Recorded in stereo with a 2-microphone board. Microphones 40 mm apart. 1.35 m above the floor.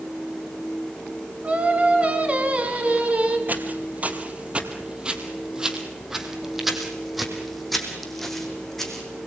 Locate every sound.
1.4 s singing: 30° right (ahead or behind), 4 m
3.5 s footsteps: 45° right (ahead or behind), 2.5 m; by 9.2 s 10° left (ahead or behind), 5.5 m